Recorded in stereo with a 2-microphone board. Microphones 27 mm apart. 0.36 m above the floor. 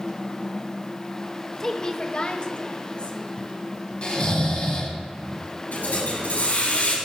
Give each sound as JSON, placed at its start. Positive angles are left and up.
{"t": 1.6, "sound": "a woman speaking", "side_deg": 15, "distance_m": 1.1}
{"t": 4.0, "sound": "snoring", "side_deg": 45, "distance_m": 3.0}
{"t": 5.7, "sound": "a hiss", "side_deg": 80, "distance_m": 6.5}